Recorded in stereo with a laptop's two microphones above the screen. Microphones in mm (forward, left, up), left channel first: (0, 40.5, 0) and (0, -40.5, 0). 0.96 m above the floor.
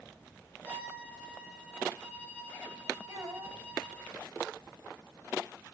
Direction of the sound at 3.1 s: 45° right (ahead or behind).